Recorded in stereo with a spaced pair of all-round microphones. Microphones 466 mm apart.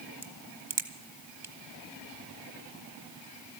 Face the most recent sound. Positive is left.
turn(degrees=-70)  # may be behind; listen again after turning